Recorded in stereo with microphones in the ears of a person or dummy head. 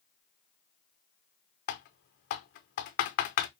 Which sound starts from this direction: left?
Typing on a keyboard, at 1.7 s.